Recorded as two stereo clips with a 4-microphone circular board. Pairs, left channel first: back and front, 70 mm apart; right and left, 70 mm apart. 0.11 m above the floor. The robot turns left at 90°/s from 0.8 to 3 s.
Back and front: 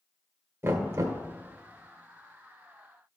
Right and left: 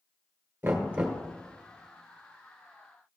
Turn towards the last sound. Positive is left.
turn(degrees=-160)